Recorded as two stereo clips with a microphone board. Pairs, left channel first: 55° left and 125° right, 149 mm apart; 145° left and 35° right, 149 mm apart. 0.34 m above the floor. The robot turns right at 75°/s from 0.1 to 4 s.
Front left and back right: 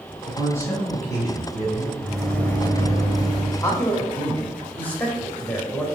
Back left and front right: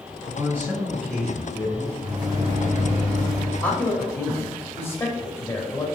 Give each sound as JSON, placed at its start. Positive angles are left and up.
{"t": 0.3, "sound": "a man speaking", "azimuth_deg": -5, "distance_m": 1.0}
{"t": 2.0, "sound": "a microwave", "azimuth_deg": -45, "distance_m": 0.9}
{"t": 3.6, "sound": "a man speaking", "azimuth_deg": 80, "distance_m": 1.0}